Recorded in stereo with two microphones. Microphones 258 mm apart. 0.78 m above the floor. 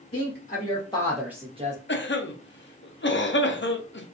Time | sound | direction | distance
0.1 | a woman speaking | 45° left (ahead or behind) | 1.1 m
1.9 | a cough | 45° left (ahead or behind) | 0.6 m